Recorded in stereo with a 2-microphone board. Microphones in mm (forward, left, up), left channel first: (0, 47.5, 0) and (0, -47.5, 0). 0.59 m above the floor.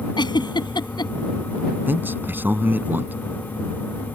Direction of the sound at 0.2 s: 55° left (ahead or behind).